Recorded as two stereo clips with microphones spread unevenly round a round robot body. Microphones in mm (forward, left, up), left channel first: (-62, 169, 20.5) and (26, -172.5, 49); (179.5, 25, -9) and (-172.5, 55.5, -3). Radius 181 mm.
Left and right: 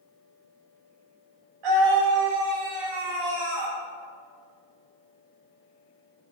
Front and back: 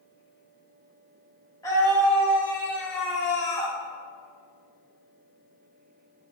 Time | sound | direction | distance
1.6 | a scream | 85° right | 3 m